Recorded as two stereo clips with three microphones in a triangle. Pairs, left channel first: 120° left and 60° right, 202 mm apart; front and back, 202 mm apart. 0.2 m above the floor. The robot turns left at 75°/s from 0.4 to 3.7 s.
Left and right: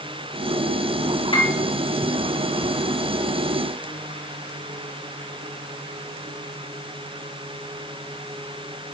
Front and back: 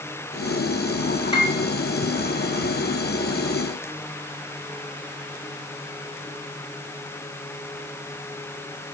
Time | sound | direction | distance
1.3 | a piano | 60° left | 2.5 m